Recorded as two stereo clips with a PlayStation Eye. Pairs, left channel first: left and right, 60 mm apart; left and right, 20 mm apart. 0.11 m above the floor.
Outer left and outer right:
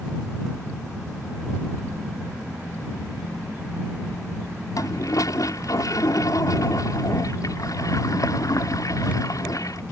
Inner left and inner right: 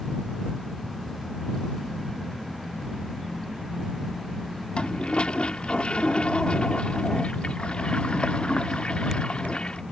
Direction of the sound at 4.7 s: 65° left (ahead or behind).